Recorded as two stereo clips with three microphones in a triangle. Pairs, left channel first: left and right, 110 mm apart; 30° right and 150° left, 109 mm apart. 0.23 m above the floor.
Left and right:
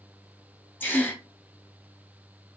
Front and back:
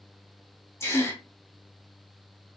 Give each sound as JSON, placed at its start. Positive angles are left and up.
{"t": 0.8, "sound": "a gasp", "azimuth_deg": 25, "distance_m": 1.4}